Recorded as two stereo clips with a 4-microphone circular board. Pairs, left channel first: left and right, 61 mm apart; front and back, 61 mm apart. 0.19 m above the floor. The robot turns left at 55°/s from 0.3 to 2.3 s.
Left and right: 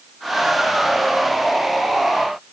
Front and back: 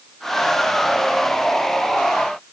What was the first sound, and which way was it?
Only background noise.